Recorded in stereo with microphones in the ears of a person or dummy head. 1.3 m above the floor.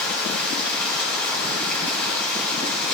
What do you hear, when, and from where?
0.0 s running water: 10° left (ahead or behind), 3.5 m